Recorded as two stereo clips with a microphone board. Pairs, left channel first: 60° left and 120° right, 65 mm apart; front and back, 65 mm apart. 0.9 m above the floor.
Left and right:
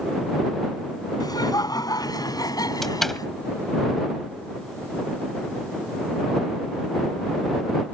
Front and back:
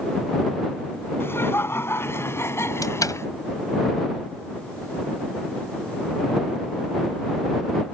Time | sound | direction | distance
1.2 | laughter | 50° left | ?
2.8 | a door slam | 25° right | ?